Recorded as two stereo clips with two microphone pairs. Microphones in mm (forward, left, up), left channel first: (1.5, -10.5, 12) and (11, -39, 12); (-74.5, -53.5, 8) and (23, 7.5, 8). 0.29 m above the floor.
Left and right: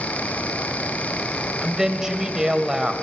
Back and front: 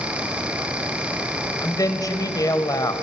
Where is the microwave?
I don't hear a microwave.